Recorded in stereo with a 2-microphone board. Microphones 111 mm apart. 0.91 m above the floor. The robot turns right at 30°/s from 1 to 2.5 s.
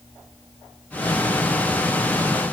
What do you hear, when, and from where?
Only background noise.